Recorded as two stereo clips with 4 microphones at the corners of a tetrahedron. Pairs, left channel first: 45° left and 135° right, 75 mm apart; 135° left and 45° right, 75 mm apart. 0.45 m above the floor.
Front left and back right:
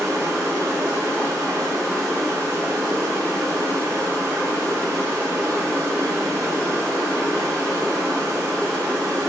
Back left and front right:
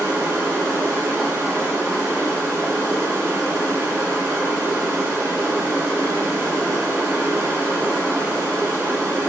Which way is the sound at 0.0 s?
90° right.